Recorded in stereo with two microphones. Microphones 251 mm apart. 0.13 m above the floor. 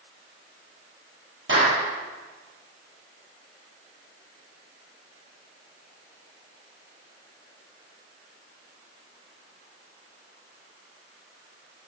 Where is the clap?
50° right (ahead or behind), 3.5 m.